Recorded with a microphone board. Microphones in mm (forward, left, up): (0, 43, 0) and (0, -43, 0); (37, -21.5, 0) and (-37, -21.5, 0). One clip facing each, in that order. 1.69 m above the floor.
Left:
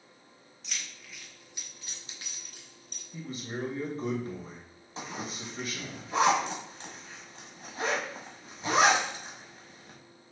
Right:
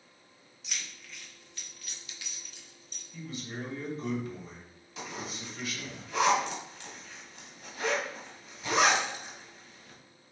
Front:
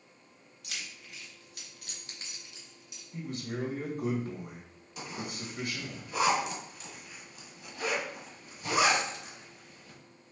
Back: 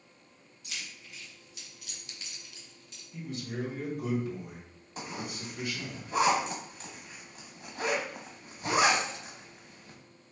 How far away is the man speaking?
About 1.8 m.